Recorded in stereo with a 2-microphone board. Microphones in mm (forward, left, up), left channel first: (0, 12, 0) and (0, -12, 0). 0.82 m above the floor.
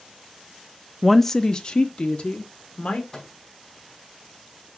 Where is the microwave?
20° left (ahead or behind), 4.5 m.